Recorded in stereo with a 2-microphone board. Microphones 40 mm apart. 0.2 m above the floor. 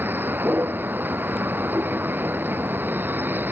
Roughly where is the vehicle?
Right.